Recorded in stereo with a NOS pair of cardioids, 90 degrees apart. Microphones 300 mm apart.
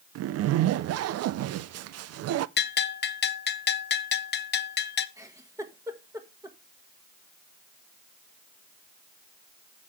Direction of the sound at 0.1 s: 60° right.